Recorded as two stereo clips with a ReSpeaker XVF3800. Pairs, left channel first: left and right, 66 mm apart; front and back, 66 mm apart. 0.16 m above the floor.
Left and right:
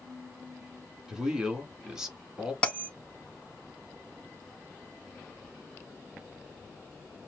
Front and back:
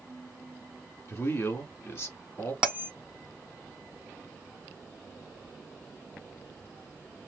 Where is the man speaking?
15° right, 1.3 m.